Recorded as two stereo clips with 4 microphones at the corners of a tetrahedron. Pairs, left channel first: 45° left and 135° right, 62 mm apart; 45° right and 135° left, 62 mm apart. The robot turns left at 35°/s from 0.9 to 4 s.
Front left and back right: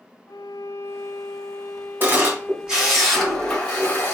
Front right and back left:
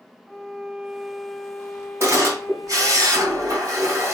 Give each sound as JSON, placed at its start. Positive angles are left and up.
{"t": 0.3, "sound": "a violin", "azimuth_deg": 45, "distance_m": 0.6}
{"t": 2.0, "sound": "a camera shutter", "azimuth_deg": 170, "distance_m": 2.5}